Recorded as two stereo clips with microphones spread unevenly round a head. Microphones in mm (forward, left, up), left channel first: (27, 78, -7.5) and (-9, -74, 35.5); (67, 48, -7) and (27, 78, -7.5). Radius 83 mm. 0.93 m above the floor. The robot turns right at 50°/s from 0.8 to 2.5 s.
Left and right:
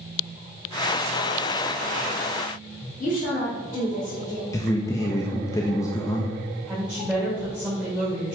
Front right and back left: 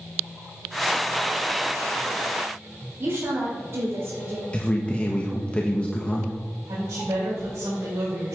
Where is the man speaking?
25° left, 1.0 m.